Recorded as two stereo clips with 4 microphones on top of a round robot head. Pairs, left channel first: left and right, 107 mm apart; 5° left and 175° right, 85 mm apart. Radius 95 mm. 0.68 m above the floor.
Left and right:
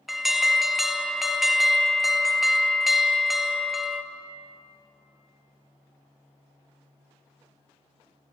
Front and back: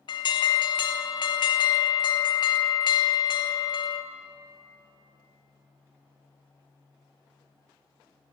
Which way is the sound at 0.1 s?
Straight ahead.